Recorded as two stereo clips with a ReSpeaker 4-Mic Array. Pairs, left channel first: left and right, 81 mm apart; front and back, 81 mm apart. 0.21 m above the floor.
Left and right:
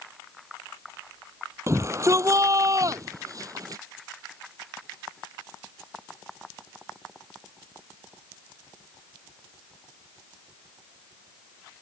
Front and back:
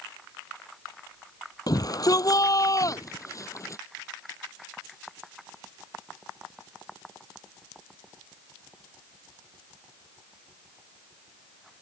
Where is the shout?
40° right; by 3.8 s 50° right.